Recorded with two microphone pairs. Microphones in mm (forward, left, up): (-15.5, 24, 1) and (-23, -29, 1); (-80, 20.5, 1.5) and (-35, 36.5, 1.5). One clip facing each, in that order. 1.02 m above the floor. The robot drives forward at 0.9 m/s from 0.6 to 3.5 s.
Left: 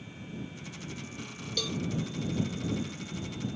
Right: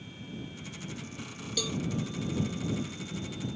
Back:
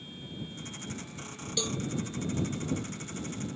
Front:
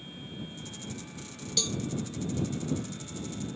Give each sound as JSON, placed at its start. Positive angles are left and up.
{"t": 1.6, "sound": "a cowbell", "azimuth_deg": -175}